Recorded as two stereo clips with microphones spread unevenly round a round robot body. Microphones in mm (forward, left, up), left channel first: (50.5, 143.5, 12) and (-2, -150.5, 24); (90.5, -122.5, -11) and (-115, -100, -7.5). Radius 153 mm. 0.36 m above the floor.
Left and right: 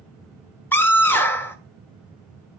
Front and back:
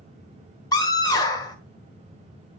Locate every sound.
0.7 s a scream: 15° left, 1.2 m